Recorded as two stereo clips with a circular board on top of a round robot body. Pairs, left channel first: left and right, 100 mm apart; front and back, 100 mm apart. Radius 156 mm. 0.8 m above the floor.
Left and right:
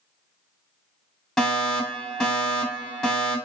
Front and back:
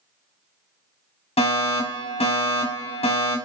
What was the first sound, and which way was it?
A fire alarm, 5° left.